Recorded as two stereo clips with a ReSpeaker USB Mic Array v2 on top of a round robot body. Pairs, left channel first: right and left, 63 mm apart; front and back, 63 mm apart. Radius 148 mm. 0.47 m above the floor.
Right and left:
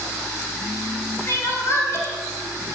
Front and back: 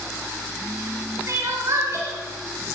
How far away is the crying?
About 3 m.